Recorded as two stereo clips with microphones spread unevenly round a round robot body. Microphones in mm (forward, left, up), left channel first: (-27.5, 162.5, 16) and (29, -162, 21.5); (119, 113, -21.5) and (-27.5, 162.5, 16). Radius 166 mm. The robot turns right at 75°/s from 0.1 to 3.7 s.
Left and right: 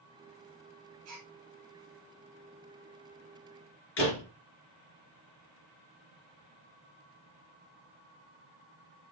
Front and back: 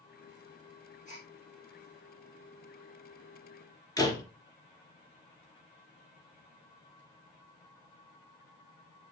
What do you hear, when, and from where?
1.1 s a gasp: 130° right, 2.5 m; by 1.3 s 110° right, 2.5 m
4.0 s a door slam: 45° left, 3 m